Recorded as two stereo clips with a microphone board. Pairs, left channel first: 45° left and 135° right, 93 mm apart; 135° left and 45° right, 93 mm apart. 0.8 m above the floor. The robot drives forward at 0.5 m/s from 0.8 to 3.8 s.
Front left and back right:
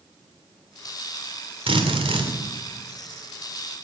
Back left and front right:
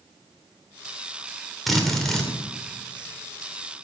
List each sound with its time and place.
1.7 s a drill: 135° right, 2.5 m; by 2.3 s 140° right, 2.5 m